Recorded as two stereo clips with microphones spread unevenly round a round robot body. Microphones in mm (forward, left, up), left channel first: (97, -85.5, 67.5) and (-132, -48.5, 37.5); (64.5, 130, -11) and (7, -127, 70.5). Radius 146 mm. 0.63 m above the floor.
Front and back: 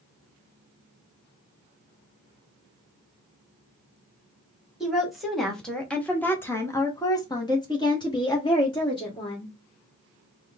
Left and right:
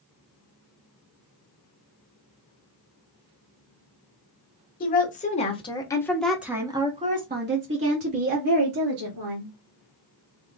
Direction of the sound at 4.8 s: 90° left.